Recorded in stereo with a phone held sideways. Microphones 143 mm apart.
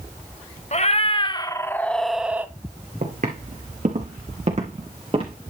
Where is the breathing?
I don't hear breathing.